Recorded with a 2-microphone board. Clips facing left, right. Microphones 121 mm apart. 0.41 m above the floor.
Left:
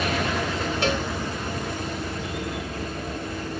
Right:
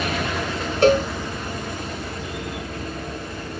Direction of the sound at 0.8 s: 50° right (ahead or behind).